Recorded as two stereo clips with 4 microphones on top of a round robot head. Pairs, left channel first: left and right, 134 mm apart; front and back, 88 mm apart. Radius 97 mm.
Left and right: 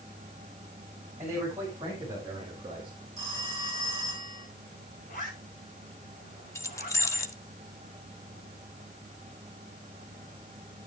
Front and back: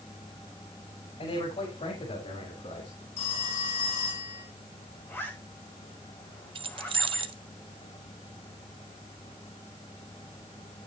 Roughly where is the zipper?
Ahead left.